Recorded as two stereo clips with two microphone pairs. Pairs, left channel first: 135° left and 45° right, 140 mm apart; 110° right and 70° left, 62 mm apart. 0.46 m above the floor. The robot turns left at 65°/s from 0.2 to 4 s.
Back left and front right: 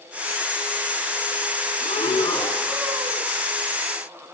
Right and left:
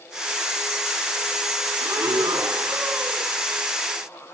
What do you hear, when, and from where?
1.8 s breathing: 105° left, 2.5 m; by 3.3 s 5° left, 2.5 m